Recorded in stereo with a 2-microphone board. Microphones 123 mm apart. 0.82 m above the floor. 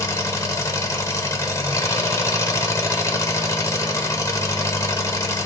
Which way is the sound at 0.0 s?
25° left (ahead or behind).